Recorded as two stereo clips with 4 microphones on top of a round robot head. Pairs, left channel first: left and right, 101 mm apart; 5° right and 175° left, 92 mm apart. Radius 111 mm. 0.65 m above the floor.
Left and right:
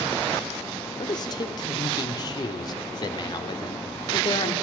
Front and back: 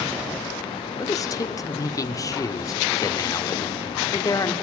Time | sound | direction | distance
1.0 | a man speaking | 40° left | 1.6 m